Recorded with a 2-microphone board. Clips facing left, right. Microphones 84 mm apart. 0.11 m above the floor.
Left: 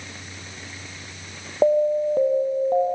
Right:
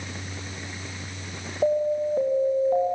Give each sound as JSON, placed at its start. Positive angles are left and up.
{"t": 1.6, "sound": "an alarm", "side_deg": 55, "distance_m": 3.5}